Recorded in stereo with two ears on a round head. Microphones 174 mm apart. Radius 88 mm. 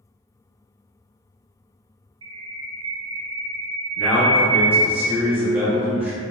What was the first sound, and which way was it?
A bird, 25° right (ahead or behind).